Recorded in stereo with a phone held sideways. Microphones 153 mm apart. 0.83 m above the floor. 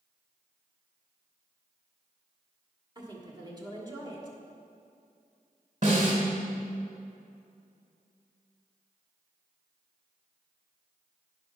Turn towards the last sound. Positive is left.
turn(degrees=-60)  # may be behind; listen again after turning